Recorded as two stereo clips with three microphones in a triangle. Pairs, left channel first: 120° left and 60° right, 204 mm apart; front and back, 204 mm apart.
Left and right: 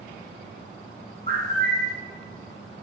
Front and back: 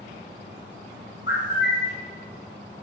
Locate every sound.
1.3 s a bird: 20° right, 1.1 m